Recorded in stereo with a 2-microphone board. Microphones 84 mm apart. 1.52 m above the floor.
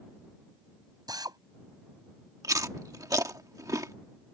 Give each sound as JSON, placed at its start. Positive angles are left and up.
{"t": 1.1, "sound": "a drill", "side_deg": -50}
{"t": 2.4, "sound": "chewing", "side_deg": -40}